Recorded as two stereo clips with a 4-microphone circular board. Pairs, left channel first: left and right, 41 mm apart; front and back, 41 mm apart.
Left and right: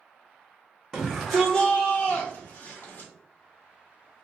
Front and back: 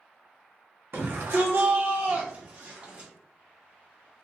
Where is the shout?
175° right, 1.0 m; by 3.1 s 110° left, 1.6 m.